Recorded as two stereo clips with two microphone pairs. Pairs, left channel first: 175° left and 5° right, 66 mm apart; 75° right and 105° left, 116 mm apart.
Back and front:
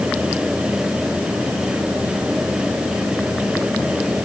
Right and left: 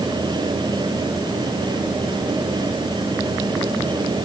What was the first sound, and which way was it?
Only background noise.